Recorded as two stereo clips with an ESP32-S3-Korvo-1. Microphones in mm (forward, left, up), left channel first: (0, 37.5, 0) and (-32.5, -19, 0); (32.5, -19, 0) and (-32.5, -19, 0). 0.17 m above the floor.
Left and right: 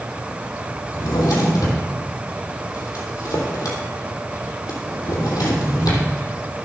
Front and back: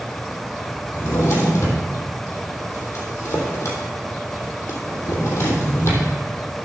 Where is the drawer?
45° left, 3 m.